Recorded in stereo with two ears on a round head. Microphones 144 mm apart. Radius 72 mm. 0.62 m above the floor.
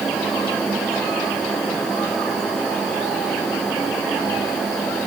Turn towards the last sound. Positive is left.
No sound to turn to.